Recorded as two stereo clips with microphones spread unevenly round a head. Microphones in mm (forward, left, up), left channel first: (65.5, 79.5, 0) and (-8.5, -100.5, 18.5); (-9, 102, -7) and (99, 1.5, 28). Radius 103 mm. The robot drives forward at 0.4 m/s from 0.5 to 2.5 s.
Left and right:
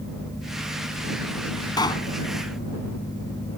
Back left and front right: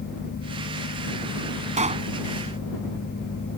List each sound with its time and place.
1.8 s a pop: 5° right